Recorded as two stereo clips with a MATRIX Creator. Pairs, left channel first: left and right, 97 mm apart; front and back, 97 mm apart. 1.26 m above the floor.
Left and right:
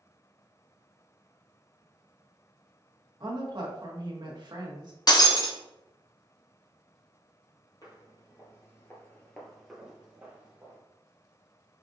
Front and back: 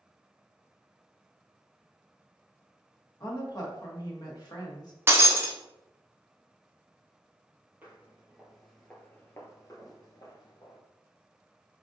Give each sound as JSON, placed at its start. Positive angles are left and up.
{"t": 3.2, "sound": "a woman speaking", "azimuth_deg": -45, "distance_m": 1.3}
{"t": 5.1, "sound": "breaking glass", "azimuth_deg": 120, "distance_m": 0.8}
{"t": 7.8, "sound": "footsteps", "azimuth_deg": 115, "distance_m": 1.7}